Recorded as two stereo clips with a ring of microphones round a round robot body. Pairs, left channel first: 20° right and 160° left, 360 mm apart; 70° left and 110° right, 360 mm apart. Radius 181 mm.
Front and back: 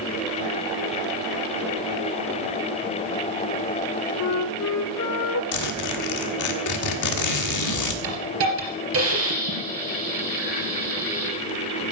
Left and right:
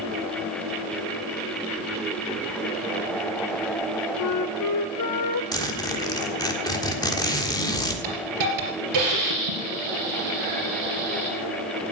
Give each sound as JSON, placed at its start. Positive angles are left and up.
{"t": 4.2, "sound": "a flute", "azimuth_deg": 25, "distance_m": 0.9}
{"t": 5.5, "sound": "a zipper", "azimuth_deg": -10, "distance_m": 1.5}
{"t": 8.0, "sound": "a hiss", "azimuth_deg": -150, "distance_m": 4.0}